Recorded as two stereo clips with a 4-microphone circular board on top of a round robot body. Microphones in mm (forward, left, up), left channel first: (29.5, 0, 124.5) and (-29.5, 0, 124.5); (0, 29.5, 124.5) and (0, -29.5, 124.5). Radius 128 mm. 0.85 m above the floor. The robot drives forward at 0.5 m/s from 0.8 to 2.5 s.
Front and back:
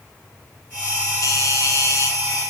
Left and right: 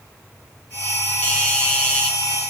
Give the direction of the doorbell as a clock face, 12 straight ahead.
11 o'clock.